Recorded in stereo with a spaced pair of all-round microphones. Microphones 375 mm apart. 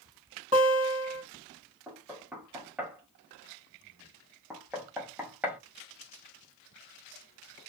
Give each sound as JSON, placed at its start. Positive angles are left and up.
{"t": 0.5, "sound": "a guitar", "side_deg": -20, "distance_m": 1.8}
{"t": 1.9, "sound": "knocking", "side_deg": -5, "distance_m": 0.8}